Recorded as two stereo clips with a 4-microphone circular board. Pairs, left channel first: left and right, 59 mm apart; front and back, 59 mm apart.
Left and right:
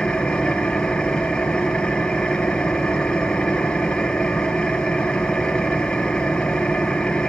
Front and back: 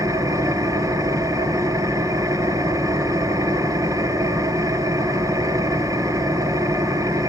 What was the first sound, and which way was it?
An engine running, 165° left.